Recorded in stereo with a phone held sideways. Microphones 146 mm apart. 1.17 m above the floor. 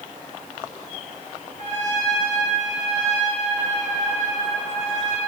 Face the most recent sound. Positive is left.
turn(degrees=-55)  # may be behind; listen again after turning